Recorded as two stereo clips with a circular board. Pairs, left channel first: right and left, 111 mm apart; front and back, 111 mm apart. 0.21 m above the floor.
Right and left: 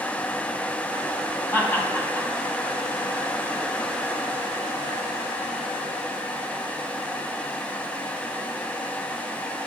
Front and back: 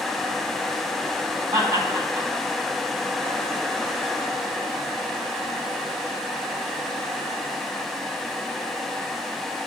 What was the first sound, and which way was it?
Laughter, 150° right.